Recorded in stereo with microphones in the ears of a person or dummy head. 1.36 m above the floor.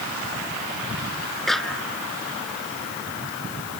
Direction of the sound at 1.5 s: 5° left (ahead or behind).